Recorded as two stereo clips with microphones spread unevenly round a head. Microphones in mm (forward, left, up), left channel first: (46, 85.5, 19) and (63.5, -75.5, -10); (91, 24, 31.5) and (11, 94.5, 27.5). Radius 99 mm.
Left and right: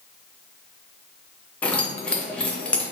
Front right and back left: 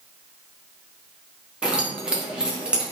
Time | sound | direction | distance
1.6 | keys jangling | 65° left | 0.6 m